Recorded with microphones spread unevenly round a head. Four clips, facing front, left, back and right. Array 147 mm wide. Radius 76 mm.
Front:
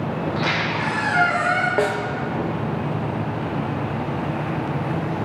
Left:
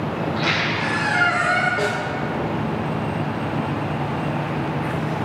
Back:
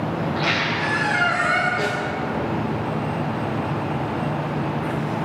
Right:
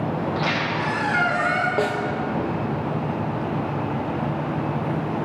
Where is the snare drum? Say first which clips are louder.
Even, front 3 dB; 25° right, 0.6 m.